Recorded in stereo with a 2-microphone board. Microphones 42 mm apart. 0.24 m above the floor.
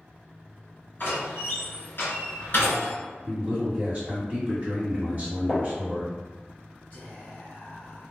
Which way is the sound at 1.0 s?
55° left (ahead or behind).